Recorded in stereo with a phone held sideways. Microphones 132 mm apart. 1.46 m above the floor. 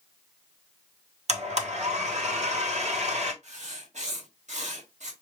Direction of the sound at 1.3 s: 60° right (ahead or behind).